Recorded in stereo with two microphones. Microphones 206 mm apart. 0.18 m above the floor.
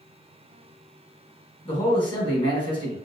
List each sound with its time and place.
1.6 s a man speaking: 25° left (ahead or behind), 1.3 m